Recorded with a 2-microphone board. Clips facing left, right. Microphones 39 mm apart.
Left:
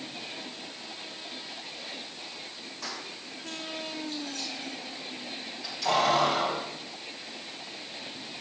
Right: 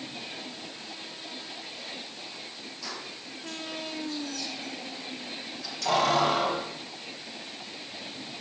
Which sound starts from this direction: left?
Keys jangling, at 2.8 s.